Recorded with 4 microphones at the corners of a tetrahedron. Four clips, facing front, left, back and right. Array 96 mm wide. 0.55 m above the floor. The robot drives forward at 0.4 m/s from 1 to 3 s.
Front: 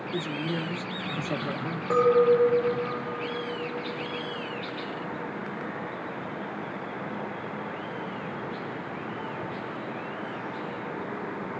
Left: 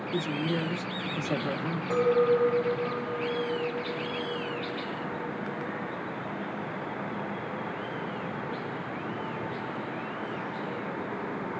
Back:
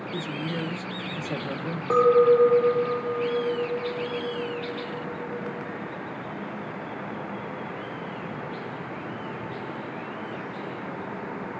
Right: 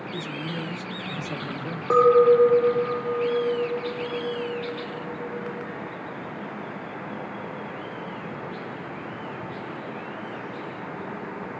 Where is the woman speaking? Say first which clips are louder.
Left 4 dB, front 1 dB; 60° left, 0.8 m; by 1.8 s 110° left, 0.8 m.